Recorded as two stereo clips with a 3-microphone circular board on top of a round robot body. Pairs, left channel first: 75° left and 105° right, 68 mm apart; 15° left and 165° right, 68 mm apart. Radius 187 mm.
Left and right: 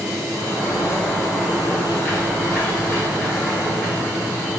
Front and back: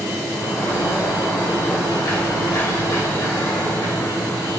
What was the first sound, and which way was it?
A sliding door, 15° left.